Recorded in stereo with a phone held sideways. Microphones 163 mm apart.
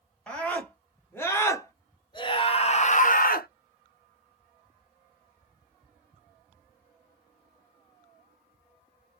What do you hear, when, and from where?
0.3 s a scream: 5° left (ahead or behind), 2 m; by 3.5 s 70° left (ahead or behind), 0.8 m